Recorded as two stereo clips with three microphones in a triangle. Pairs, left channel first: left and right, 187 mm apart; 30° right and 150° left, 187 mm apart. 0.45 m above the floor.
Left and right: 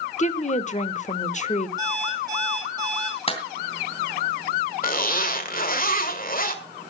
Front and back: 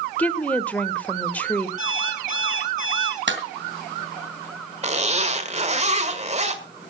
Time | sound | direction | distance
0.2 | a woman speaking | 50° left | 1.1 m
1.8 | an alarm clock | 160° right | 8 m
3.3 | a clap | 145° left | 2.5 m
4.8 | a zipper | 110° left | 1.6 m